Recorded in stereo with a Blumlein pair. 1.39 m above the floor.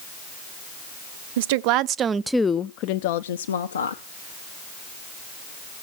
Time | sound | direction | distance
1.4 | a woman speaking | 55° right | 0.8 m